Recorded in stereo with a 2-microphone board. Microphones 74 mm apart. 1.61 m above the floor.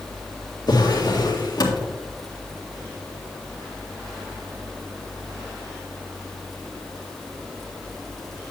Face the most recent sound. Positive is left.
turn(degrees=65)  # may be behind; listen again after turning